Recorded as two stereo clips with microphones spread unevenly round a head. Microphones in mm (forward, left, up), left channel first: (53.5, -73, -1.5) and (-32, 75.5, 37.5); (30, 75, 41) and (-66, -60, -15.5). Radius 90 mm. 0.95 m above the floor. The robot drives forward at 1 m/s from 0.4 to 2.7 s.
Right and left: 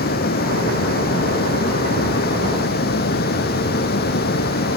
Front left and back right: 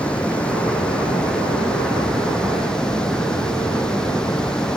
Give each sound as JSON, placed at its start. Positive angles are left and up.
{"t": 0.0, "sound": "running water", "azimuth_deg": -30}